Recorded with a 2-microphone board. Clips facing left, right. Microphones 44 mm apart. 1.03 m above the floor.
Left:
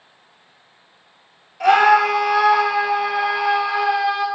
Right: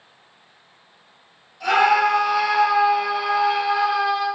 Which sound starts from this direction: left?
A scream, at 1.6 s.